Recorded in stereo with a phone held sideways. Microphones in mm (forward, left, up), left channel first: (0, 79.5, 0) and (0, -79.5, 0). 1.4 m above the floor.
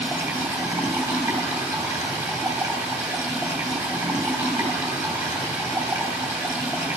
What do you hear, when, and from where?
0.0 s running water: 20° right (ahead or behind), 3 m